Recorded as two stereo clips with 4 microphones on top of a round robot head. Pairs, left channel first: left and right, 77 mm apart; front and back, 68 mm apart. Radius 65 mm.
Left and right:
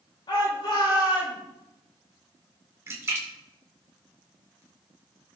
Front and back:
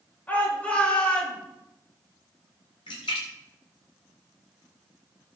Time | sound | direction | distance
0.3 | a shout | 65° left | 5.5 m
2.9 | a splash | 35° right | 2 m